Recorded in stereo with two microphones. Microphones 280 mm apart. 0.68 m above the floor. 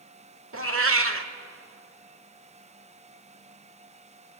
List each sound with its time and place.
0.5 s a cat meowing: 50° right (ahead or behind), 1.1 m